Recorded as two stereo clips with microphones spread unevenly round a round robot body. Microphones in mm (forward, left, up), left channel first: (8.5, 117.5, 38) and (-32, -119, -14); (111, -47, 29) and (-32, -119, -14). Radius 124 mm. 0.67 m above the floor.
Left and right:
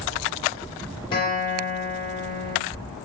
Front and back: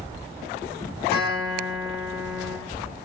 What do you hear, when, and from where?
1.1 s a guitar: 5° left, 2.5 m